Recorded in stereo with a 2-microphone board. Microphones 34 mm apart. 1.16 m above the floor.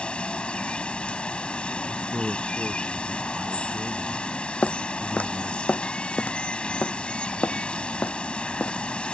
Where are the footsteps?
40° left (ahead or behind); by 9.1 s 75° left (ahead or behind).